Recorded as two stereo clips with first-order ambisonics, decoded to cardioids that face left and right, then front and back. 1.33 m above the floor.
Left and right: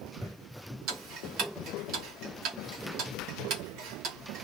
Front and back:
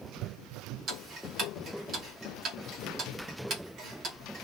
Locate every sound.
0.9 s ticking: 125° right, 1.2 m